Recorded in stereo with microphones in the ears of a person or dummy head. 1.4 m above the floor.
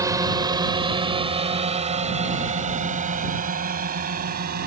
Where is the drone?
15° right (ahead or behind); by 4.7 s 45° right (ahead or behind).